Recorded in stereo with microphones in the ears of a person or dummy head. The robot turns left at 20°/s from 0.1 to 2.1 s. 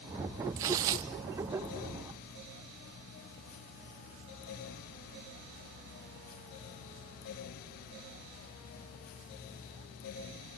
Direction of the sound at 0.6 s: 20° right (ahead or behind).